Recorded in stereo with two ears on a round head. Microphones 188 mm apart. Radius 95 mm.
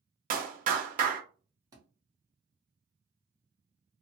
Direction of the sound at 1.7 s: 15° right (ahead or behind).